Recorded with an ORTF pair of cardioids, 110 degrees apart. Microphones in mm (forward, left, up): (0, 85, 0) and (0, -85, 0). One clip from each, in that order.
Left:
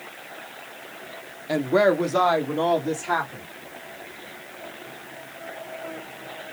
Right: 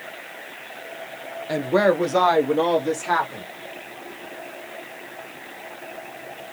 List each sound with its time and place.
1.5 s a woman speaking: straight ahead, 0.6 m; by 3.5 s 20° right, 1.6 m